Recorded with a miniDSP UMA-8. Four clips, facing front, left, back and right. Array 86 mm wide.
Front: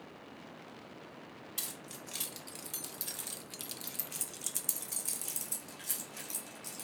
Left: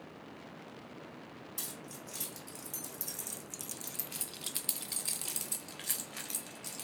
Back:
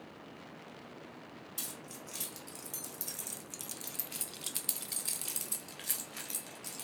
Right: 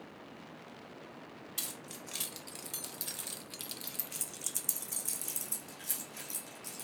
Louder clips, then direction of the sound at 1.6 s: Even, even; 55° right.